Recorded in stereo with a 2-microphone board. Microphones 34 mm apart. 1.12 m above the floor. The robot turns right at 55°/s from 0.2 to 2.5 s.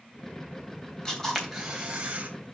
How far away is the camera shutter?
About 3 m.